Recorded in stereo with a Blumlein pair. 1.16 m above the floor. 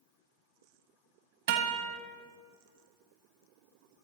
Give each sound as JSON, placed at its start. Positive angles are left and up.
{"t": 1.5, "sound": "a guitar", "azimuth_deg": -55, "distance_m": 1.7}